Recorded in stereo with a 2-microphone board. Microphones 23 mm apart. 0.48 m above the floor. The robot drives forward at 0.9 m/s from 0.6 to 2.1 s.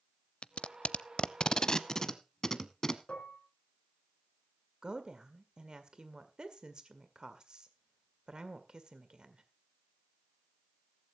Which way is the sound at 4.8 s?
40° right (ahead or behind).